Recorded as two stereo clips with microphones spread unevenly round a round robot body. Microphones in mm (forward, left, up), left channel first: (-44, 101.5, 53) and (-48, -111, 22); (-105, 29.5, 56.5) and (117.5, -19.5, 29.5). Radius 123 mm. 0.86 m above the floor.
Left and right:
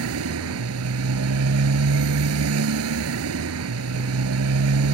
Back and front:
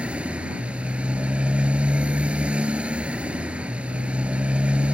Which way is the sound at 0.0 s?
100° right.